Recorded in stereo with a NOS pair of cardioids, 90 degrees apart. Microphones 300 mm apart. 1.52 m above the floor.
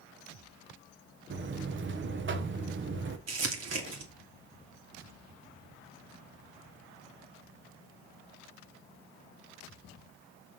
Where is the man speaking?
No man speaking in this recording.